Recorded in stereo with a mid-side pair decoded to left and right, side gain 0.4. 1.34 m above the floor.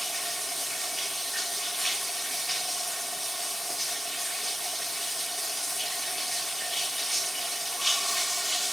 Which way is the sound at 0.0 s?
Straight ahead.